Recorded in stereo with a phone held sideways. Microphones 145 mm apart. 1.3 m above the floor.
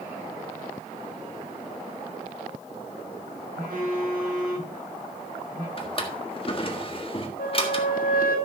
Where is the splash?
I don't hear a splash.